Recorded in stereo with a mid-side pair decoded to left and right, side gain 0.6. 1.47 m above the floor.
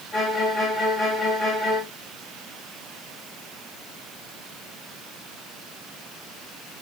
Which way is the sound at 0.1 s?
40° left.